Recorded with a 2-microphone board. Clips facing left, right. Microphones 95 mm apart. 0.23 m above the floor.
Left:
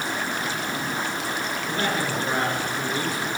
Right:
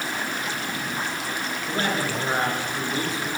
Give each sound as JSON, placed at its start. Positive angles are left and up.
{"t": 1.7, "sound": "a man speaking", "side_deg": -25, "distance_m": 4.5}